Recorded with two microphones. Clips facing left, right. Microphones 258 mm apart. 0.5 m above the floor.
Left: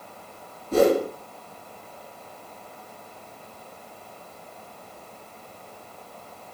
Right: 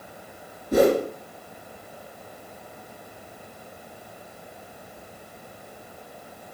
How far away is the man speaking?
I don't hear a man speaking.